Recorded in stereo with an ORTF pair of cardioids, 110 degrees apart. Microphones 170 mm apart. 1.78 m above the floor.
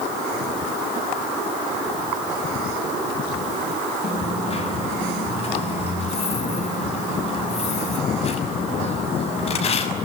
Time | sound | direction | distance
4.0 | a dropped coin | 40° left | 6 m